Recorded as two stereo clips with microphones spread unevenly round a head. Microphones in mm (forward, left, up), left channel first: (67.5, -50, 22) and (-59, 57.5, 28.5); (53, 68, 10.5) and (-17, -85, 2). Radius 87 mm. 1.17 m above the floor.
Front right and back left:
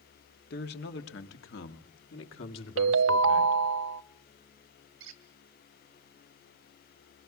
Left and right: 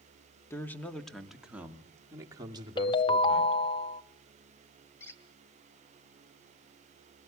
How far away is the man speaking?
About 1.9 m.